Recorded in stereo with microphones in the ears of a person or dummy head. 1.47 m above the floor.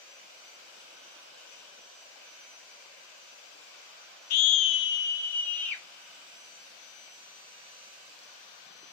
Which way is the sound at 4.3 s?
55° left (ahead or behind).